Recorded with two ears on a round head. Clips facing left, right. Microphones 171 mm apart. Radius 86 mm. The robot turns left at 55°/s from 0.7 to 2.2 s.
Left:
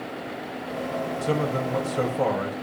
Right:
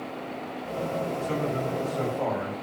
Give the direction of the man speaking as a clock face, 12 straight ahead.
8 o'clock.